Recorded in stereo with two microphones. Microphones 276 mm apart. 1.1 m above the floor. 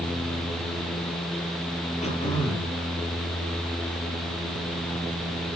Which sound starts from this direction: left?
Throat clearing, at 2.0 s.